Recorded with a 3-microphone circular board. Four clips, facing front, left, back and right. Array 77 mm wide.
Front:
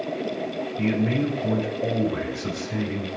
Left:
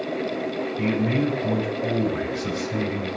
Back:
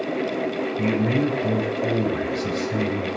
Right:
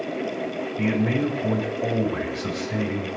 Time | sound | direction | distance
0.8 | a man speaking | 75° right | 7 m